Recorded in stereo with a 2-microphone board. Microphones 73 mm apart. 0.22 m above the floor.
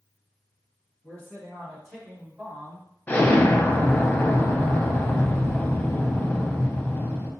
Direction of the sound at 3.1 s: 25° left (ahead or behind).